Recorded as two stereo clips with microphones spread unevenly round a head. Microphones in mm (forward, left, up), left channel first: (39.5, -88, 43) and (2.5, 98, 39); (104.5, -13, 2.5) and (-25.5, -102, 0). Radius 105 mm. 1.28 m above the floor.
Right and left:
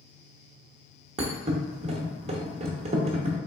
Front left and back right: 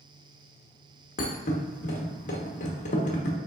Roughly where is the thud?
Ahead left.